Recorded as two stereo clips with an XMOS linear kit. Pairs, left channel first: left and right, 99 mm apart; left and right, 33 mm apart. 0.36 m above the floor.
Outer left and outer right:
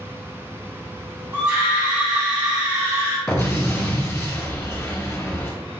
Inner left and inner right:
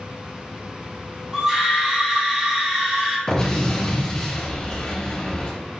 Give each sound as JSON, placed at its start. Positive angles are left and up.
{"t": 1.3, "sound": "a scream", "side_deg": -35, "distance_m": 1.3}
{"t": 3.3, "sound": "an explosion", "side_deg": 20, "distance_m": 1.5}